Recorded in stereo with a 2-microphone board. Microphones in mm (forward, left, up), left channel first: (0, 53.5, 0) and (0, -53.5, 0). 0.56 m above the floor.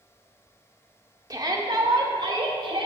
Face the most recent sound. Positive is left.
turn(degrees=-50)  # may be behind; listen again after turning